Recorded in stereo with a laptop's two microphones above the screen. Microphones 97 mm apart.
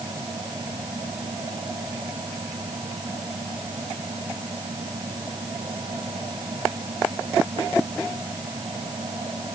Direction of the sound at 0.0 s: 55° right (ahead or behind).